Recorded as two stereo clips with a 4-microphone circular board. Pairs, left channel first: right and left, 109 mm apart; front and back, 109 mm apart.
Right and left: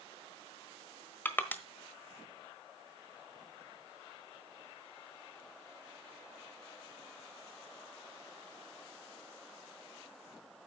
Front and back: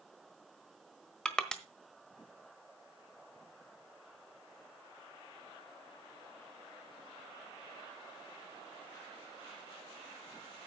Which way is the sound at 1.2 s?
65° right.